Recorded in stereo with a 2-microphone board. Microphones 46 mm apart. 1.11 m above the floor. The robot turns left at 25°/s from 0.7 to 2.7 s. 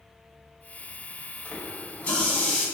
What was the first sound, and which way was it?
A running tap, 50° left (ahead or behind).